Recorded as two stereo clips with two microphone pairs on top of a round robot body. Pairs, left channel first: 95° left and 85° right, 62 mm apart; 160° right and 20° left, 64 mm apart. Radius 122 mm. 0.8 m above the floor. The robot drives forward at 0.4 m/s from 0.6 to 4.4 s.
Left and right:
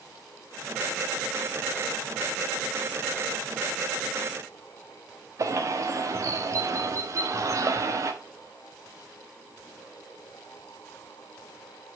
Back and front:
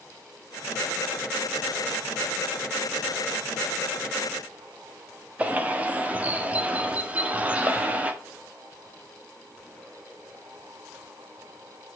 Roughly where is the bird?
Ahead right.